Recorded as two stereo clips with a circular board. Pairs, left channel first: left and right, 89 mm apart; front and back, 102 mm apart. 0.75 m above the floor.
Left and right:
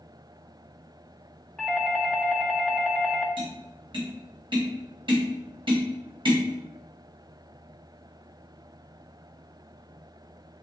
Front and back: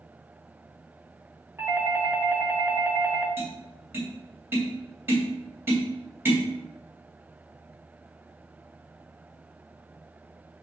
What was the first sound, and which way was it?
A doorbell, 170° left.